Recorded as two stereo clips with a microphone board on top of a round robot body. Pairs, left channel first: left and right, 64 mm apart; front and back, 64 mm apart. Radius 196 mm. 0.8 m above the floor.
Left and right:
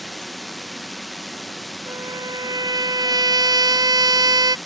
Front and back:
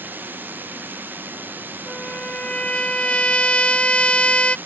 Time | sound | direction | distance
0.0 | a drone | straight behind | ?
1.9 | a trumpet | 75° right | ?